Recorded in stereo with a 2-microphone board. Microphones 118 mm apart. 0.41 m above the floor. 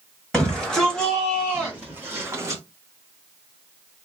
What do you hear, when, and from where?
0.3 s a shout: 5° left (ahead or behind), 1.6 m; by 2.6 s 30° right (ahead or behind), 1.0 m